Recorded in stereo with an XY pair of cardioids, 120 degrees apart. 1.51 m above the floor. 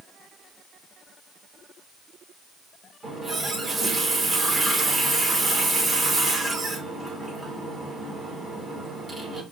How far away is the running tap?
About 2.5 m.